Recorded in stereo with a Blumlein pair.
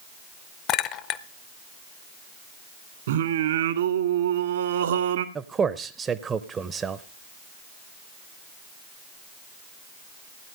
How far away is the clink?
About 0.7 m.